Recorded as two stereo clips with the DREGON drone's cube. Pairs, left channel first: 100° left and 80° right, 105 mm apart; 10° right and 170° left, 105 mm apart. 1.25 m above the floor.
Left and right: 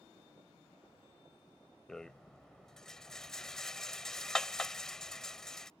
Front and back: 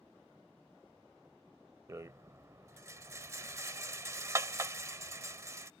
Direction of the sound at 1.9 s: Straight behind.